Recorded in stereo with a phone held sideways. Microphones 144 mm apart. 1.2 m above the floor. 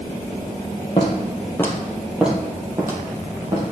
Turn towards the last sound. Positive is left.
turn(degrees=-35)  # may be behind; listen again after turning